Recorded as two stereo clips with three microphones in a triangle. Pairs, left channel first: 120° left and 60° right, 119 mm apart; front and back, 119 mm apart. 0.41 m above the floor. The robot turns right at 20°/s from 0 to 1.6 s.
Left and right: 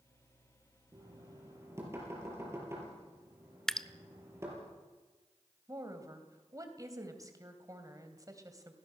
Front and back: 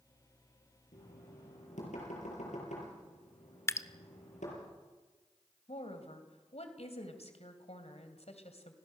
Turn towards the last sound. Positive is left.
turn(degrees=-5)